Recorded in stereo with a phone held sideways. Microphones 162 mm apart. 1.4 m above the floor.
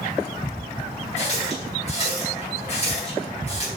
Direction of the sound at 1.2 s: 45° left (ahead or behind).